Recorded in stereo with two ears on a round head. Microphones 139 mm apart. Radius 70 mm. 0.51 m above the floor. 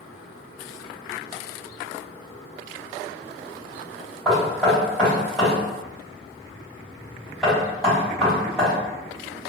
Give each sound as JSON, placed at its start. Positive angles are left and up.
{"t": 4.2, "sound": "knocking", "side_deg": 0, "distance_m": 1.9}